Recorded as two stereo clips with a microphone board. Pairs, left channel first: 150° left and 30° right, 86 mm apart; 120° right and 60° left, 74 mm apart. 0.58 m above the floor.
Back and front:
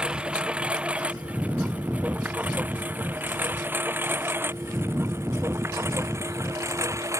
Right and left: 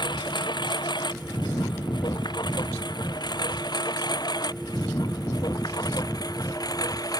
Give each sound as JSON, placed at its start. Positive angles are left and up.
{"t": 0.0, "sound": "a lawn mower", "azimuth_deg": -110}